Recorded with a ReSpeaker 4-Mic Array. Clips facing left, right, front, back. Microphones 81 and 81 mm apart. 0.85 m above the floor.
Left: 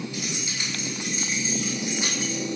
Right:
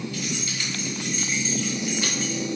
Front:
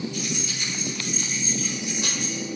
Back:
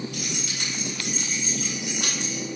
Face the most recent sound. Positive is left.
turn(degrees=160)